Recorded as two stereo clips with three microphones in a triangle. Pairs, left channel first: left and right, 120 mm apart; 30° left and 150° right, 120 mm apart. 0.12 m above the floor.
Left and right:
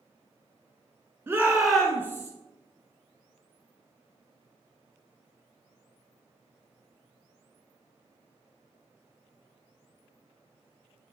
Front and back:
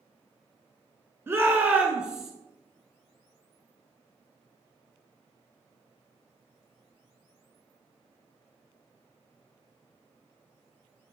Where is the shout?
125° right, 1.1 m; by 2.3 s 125° left, 1.2 m.